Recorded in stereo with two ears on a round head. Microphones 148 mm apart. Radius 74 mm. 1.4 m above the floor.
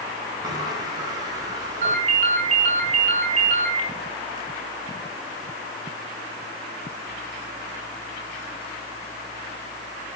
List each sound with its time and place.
0.4 s a sliding door: 25° right (ahead or behind), 6 m
1.8 s a ringtone: 45° right (ahead or behind), 7.5 m